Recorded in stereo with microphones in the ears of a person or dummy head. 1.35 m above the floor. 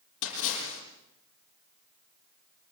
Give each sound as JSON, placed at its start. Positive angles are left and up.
{"t": 0.2, "sound": "a splash", "side_deg": 70, "distance_m": 7.5}